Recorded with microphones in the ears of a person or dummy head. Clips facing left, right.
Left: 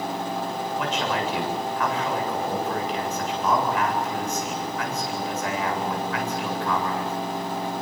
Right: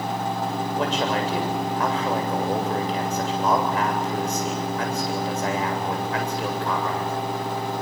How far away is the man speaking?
About 7.5 m.